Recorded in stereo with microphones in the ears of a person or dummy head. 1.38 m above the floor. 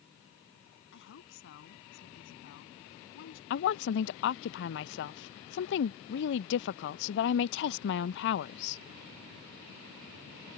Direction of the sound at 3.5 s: 55° left (ahead or behind).